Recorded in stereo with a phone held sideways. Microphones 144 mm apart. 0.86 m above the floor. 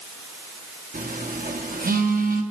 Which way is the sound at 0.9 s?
80° right.